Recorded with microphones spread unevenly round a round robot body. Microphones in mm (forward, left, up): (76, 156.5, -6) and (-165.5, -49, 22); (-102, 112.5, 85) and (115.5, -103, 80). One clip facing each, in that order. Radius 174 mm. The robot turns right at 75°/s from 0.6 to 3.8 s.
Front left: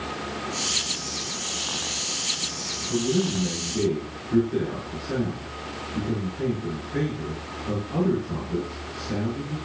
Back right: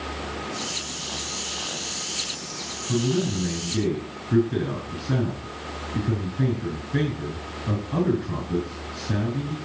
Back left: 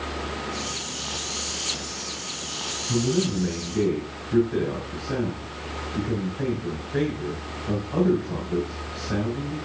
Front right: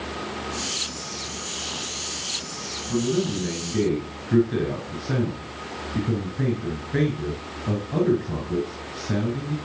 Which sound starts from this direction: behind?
A man speaking, at 2.9 s.